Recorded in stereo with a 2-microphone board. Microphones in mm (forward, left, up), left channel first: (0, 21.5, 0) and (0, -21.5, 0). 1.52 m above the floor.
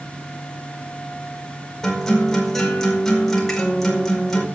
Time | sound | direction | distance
1.8 | a guitar | 10° left (ahead or behind) | 5 m